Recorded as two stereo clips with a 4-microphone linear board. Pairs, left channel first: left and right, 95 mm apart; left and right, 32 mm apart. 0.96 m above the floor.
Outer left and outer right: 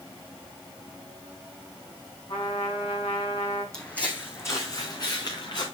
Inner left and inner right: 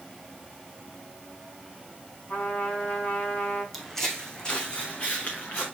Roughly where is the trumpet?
Left.